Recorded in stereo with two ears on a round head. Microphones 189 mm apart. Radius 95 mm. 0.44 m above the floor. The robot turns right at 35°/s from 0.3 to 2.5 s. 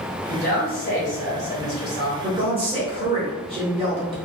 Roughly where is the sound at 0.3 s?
Ahead left.